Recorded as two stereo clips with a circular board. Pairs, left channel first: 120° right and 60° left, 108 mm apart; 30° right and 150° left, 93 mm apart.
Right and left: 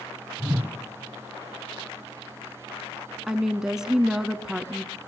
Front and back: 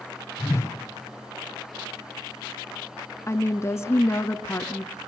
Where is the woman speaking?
20° right, 1.2 m.